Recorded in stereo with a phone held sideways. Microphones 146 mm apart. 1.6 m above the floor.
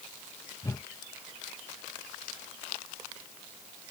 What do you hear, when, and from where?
0.6 s a whoosh: 25° left (ahead or behind)